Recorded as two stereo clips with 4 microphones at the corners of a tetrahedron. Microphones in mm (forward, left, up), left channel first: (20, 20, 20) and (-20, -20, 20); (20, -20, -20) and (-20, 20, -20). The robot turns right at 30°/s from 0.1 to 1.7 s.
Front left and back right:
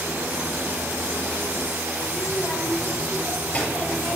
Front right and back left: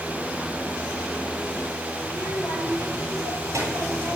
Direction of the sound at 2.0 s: 115° left.